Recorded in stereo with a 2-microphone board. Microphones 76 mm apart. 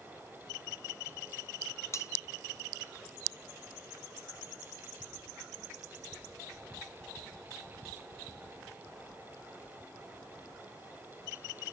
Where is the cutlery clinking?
40° left (ahead or behind), 1.1 m.